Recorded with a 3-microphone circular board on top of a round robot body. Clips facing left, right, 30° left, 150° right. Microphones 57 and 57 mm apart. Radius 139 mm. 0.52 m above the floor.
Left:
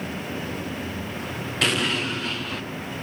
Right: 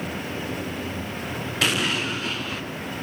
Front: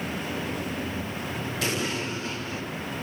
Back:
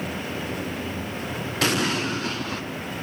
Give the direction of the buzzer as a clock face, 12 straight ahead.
I don't hear a buzzer.